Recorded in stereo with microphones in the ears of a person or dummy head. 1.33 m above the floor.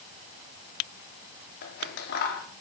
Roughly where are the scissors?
Left.